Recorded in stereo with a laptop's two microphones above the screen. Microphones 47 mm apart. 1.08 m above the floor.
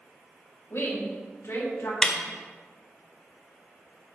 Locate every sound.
0.7 s a woman speaking: 75° left (ahead or behind), 4.5 m; by 1.9 s 80° left, 4.5 m
2.0 s a snare drum: 15° left (ahead or behind), 1.5 m